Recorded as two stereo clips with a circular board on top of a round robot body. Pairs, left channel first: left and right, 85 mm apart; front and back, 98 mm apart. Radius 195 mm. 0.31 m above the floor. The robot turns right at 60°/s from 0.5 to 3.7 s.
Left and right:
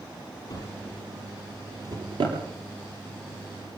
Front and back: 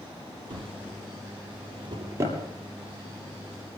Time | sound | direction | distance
0.5 | a drawer | 140° left | 7 m